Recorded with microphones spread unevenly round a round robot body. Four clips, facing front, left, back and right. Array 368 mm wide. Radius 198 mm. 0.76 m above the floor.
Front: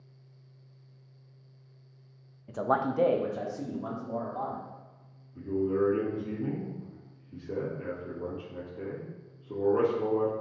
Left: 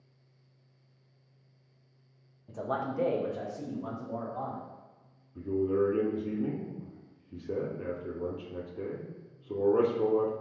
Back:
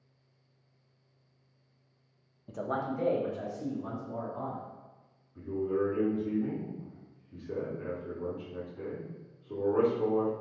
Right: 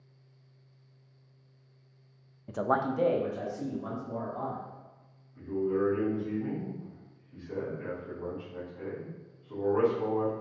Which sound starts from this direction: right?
A man speaking, at 2.5 s.